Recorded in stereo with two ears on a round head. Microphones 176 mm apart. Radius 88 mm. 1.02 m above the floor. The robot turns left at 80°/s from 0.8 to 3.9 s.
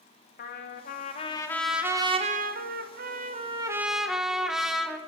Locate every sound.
0.4 s a trumpet: 70° left, 1.1 m; by 5.0 s 175° right, 1.1 m